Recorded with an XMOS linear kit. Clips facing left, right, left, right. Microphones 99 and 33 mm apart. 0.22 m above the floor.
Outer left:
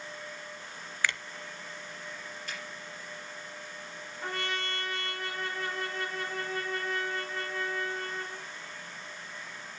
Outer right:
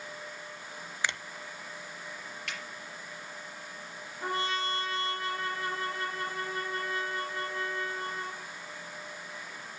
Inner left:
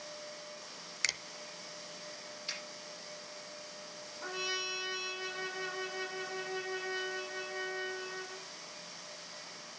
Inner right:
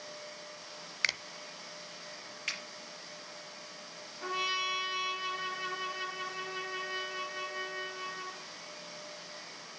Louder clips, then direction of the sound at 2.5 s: Outer right 1 dB, inner right 5 dB; 75° right (ahead or behind).